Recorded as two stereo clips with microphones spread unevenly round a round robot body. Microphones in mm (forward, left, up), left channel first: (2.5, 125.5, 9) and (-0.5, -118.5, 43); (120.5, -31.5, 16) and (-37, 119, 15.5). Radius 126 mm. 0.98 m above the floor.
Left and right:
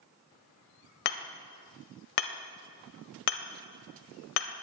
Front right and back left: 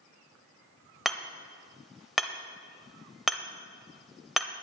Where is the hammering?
45° left, 1.3 m.